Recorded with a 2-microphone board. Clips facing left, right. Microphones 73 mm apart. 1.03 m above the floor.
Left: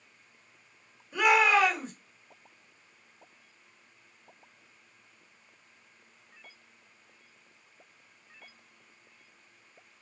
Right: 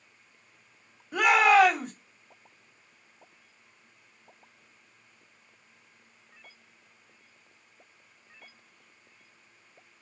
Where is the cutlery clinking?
I don't hear cutlery clinking.